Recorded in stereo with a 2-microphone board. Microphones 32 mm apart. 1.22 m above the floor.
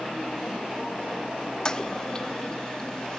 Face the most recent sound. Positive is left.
turn(degrees=25)  # may be behind; listen again after turning